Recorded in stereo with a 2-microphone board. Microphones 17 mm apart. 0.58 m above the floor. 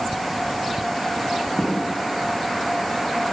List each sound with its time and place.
1.6 s an explosion: 85° left, 2.5 m